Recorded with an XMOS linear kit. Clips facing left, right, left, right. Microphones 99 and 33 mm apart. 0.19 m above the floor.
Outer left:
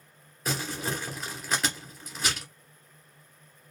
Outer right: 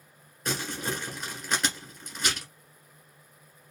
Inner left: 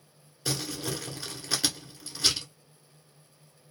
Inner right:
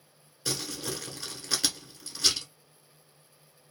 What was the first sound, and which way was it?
Crumpling, 5° left (ahead or behind).